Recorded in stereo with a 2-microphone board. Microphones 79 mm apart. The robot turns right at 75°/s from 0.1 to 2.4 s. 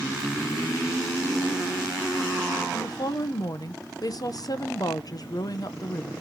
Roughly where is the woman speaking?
Left.